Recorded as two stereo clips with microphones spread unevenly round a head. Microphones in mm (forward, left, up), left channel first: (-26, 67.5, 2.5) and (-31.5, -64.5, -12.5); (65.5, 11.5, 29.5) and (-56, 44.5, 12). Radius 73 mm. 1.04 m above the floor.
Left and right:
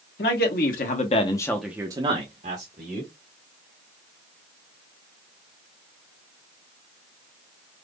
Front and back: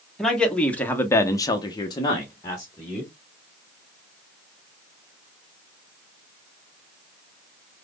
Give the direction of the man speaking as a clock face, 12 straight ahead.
10 o'clock.